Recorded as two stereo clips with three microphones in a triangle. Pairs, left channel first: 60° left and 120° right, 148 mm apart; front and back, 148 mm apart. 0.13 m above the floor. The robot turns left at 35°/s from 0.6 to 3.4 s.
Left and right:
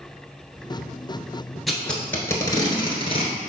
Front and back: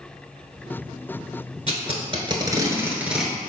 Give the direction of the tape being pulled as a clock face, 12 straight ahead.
7 o'clock.